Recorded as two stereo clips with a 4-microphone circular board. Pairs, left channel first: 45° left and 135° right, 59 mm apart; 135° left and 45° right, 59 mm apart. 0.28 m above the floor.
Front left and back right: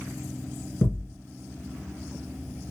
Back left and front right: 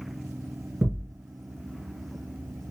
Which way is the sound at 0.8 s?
5° left.